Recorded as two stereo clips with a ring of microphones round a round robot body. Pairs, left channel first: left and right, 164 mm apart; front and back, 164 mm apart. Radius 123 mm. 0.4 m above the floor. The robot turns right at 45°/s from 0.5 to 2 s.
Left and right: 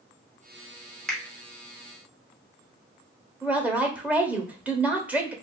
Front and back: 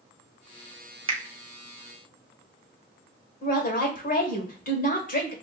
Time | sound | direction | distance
1.1 | a finger snap | 170° left | 0.8 m
3.4 | a woman speaking | 10° right | 1.2 m